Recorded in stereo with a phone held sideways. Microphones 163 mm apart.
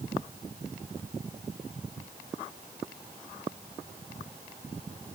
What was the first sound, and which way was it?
Only background noise.